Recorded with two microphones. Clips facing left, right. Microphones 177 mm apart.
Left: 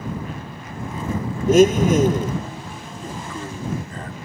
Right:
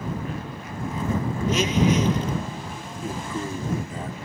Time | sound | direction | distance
1.5 | a blender | 50° left (ahead or behind) | ?
3.0 | a man speaking | 10° right (ahead or behind) | ?